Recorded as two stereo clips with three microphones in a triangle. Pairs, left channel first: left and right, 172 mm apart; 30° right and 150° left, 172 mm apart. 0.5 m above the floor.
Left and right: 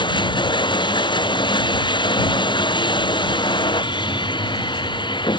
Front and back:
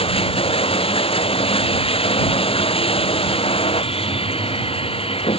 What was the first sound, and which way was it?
Running water, 25° left.